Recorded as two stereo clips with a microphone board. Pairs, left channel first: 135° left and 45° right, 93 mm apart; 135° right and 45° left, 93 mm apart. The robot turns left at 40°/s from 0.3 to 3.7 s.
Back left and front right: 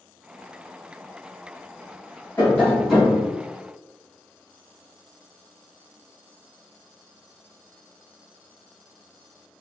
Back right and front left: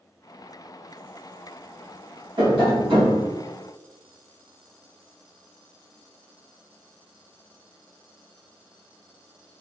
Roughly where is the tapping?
Ahead left.